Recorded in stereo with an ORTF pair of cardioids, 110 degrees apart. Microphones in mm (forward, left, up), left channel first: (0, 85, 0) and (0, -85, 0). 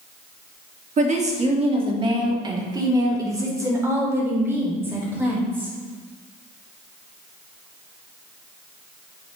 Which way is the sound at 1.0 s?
45° right.